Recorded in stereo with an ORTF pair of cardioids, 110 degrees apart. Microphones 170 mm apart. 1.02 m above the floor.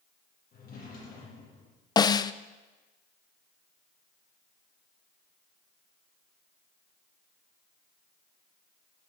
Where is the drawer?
60° left, 7 m.